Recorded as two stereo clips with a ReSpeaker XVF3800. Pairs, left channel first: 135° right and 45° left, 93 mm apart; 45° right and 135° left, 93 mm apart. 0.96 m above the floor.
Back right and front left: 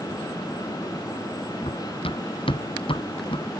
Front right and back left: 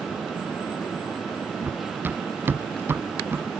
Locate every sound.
1.6 s running footsteps: 155° right; by 3.5 s 160° right